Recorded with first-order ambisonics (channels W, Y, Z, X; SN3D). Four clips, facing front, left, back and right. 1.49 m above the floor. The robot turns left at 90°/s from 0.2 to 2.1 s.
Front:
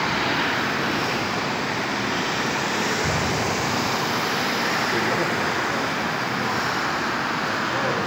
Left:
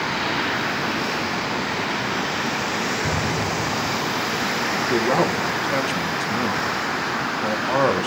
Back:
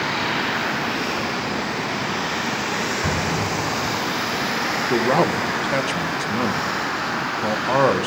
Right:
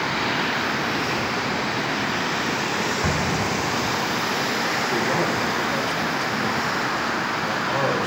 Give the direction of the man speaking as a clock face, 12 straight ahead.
7 o'clock.